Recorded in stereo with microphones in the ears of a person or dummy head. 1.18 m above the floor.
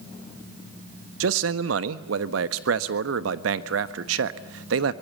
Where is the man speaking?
80° right, 1.1 m.